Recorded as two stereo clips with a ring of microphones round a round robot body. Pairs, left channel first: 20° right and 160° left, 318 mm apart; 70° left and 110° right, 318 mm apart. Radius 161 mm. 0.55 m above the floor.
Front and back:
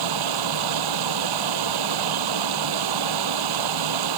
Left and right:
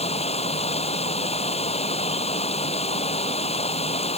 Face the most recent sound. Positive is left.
turn(degrees=140)